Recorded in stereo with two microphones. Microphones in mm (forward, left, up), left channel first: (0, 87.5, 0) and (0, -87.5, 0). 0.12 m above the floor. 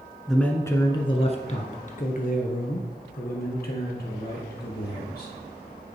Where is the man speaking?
Centre (ahead or behind), 1.1 m; by 5.3 s 65° left (ahead or behind), 4 m.